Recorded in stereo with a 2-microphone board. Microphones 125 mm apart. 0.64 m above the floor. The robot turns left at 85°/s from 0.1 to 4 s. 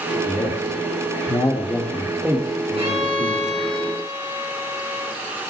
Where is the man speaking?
20° left (ahead or behind), 1.6 m; by 3.5 s 55° right (ahead or behind), 1.6 m.